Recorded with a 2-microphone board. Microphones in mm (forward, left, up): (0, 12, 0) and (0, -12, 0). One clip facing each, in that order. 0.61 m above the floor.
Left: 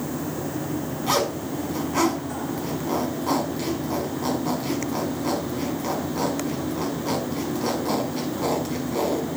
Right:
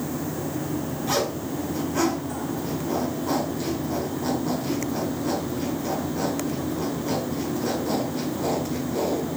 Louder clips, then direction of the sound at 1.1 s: Left 3 dB; 65° left (ahead or behind).